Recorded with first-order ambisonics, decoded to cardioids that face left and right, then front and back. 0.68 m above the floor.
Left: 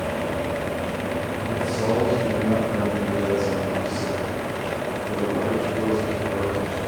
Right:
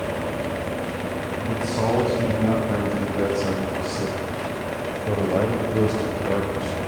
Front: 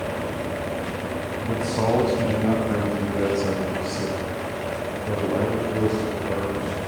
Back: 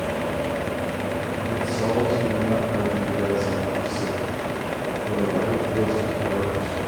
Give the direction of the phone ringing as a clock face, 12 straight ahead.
I don't hear a phone ringing.